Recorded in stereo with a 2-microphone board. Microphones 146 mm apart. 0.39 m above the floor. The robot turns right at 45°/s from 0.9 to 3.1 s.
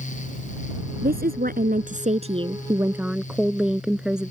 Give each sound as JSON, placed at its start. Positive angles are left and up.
{"t": 1.0, "sound": "a woman speaking", "azimuth_deg": -100}